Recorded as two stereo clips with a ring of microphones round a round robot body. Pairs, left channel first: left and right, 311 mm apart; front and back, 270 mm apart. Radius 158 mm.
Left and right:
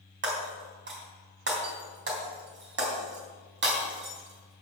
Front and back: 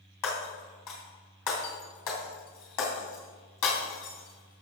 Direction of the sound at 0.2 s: 35° right.